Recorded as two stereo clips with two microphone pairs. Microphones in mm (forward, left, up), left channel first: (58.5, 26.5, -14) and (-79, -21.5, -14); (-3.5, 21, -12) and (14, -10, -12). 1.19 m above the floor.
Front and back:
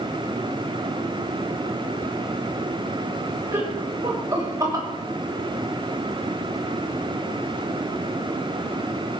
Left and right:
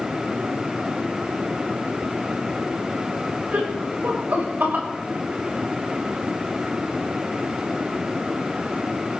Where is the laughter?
90° right, 6 m; by 4.9 s 95° right, 5.5 m.